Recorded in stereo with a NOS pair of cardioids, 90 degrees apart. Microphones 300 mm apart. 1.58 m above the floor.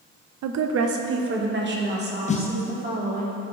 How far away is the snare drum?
About 0.6 m.